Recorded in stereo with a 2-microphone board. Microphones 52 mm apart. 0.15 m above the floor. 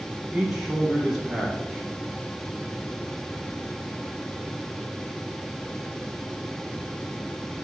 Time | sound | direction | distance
0.3 | a man speaking | 5° right (ahead or behind) | 2.5 m